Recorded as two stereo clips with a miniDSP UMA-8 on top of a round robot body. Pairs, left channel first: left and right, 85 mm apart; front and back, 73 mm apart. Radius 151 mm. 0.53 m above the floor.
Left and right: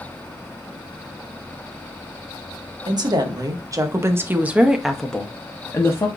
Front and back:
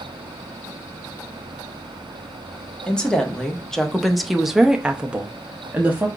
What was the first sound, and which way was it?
A woman speaking, 75° right.